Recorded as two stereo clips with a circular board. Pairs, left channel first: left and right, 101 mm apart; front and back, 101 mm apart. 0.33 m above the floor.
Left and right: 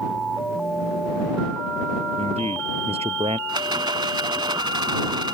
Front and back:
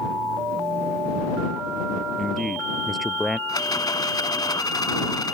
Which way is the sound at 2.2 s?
90° right.